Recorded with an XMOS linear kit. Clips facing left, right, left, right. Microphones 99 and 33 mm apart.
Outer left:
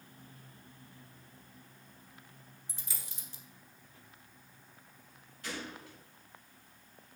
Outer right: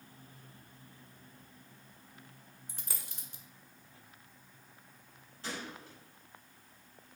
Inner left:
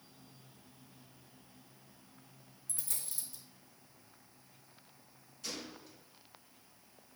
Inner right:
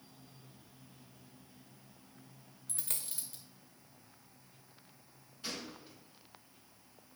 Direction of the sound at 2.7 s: 55° right (ahead or behind).